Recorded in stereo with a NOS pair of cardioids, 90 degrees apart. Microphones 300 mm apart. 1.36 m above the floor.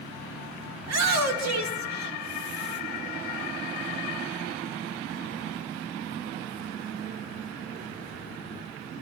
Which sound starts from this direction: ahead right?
A shout, at 0.8 s.